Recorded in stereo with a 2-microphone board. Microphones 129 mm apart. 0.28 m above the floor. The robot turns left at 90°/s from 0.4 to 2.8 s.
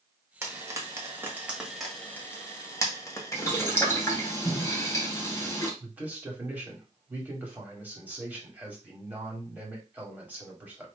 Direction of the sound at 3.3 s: 20° left (ahead or behind).